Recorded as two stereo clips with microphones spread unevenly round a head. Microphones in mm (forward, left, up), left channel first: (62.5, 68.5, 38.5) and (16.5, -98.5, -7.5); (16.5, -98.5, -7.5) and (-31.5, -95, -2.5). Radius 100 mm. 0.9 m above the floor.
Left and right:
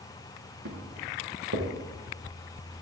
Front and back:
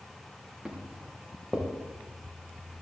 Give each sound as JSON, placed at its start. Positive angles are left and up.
{"t": 0.7, "sound": "footsteps", "azimuth_deg": -100, "distance_m": 5.0}